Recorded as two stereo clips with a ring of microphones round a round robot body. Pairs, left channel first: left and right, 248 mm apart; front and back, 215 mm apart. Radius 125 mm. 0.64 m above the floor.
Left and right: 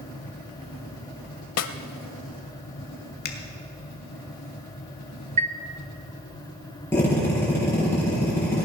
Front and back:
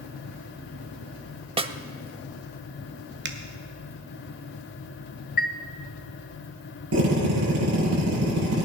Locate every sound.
1.6 s a snare drum: 115° left, 0.7 m
3.2 s a finger snap: 140° left, 1.5 m
5.4 s a chime: 35° right, 0.5 m
6.9 s a drill: 170° left, 7 m